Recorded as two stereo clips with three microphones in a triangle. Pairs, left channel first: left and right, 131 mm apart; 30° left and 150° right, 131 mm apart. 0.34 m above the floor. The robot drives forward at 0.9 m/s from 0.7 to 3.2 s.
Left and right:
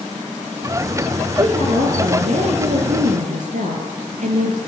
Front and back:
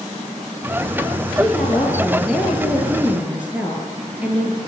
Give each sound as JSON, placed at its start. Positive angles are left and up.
{"t": 1.3, "sound": "a woman speaking", "azimuth_deg": -55, "distance_m": 7.0}